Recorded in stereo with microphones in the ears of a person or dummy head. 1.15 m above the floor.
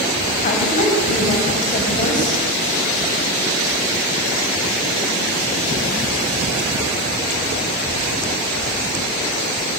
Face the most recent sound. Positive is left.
turn(degrees=40)  # may be behind; listen again after turning